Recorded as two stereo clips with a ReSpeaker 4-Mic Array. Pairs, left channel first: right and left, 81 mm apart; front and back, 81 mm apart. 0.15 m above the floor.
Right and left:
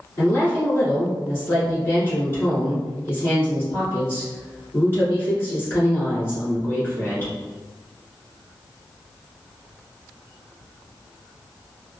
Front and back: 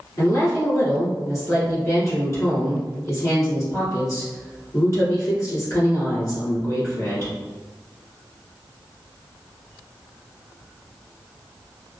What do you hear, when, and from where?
0.2 s a woman speaking: 35° right, 1.7 m